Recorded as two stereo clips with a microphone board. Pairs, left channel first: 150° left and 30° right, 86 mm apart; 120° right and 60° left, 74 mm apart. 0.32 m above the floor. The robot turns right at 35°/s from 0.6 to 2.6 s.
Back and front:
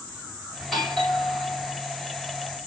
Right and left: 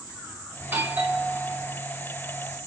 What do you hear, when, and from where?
0.6 s a doorbell: 60° left, 1.3 m; by 1.8 s 100° left, 1.3 m